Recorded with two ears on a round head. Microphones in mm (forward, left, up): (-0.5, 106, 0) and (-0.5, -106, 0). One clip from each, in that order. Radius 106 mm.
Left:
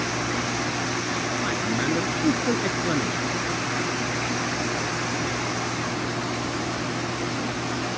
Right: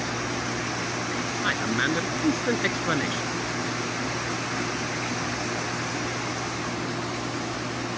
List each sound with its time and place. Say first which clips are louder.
1.4 s a man speaking: right 4 dB; 60° right (ahead or behind)